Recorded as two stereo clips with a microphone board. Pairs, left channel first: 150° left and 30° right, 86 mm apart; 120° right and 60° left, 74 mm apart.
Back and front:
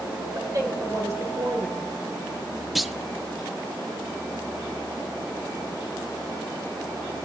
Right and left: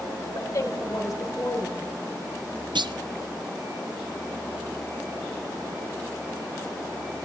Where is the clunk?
60° left, 0.5 m.